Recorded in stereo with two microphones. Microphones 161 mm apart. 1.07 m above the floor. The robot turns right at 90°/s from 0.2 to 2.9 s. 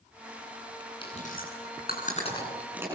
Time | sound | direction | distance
1.0 | chewing | 30° left (ahead or behind) | 9.5 m